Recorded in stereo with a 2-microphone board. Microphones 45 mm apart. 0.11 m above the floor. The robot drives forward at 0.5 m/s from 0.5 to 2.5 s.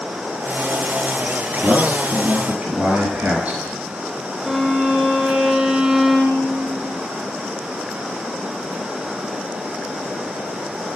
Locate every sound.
1.6 s a man speaking: 40° right (ahead or behind), 1.9 m; by 3.6 s 35° right (ahead or behind), 2 m
4.4 s a violin: 20° right (ahead or behind), 2.5 m